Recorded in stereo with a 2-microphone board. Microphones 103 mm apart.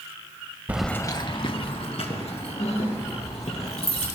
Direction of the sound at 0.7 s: 15° right (ahead or behind).